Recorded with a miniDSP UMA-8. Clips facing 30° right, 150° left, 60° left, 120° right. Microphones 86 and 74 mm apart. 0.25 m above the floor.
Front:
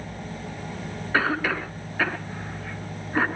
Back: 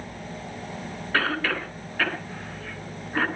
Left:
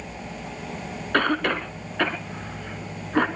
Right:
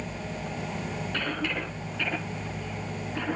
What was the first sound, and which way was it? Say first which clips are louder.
A cough: front 2 dB, left 11 dB; 45° left.